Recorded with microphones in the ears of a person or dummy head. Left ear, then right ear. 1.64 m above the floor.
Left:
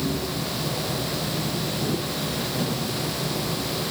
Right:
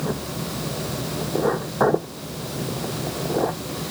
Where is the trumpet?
No trumpet in this recording.